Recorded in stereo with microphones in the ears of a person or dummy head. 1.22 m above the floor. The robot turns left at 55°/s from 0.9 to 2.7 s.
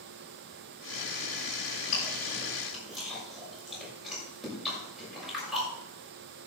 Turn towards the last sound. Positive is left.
turn(degrees=0)  # may be behind; listen again after turning